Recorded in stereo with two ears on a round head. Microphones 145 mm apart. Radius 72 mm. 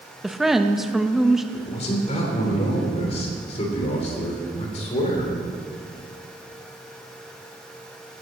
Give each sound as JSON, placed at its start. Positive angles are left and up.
{"t": 0.2, "sound": "a woman speaking", "side_deg": 0, "distance_m": 0.6}
{"t": 1.5, "sound": "a man speaking", "side_deg": 40, "distance_m": 3.0}